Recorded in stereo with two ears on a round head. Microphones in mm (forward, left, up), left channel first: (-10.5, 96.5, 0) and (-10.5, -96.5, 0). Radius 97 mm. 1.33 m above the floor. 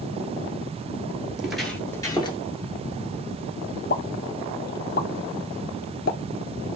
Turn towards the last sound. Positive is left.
turn(degrees=45)  # may be behind; listen again after turning